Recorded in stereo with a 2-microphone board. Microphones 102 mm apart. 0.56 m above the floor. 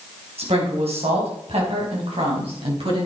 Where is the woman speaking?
75° right (ahead or behind), 4 m; by 3.0 s 60° right (ahead or behind), 5 m.